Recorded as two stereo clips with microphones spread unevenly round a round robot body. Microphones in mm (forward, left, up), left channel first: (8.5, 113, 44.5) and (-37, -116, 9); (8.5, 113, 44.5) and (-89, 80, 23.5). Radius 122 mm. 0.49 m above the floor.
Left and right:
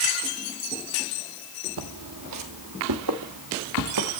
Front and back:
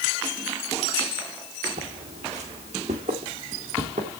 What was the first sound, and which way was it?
Footsteps, 130° right.